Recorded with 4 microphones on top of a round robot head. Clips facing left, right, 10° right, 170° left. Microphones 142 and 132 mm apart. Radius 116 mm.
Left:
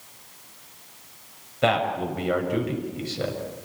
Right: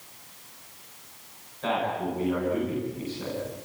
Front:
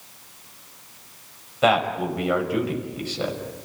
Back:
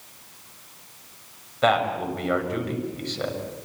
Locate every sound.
1.6 s a man speaking: 70° left, 6 m